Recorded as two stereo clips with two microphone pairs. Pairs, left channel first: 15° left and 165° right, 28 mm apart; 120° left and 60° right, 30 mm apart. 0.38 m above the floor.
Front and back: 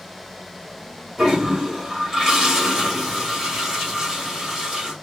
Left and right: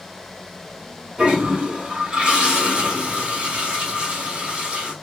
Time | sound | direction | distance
1.2 | a toilet flushing | 105° right | 2 m